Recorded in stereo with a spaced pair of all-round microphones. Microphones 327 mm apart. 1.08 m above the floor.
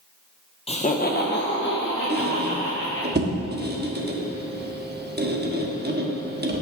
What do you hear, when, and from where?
0.7 s laughter: 20° left (ahead or behind), 0.7 m; by 3.1 s 40° left (ahead or behind), 2.5 m
2.1 s a squeak: 30° right (ahead or behind), 1.0 m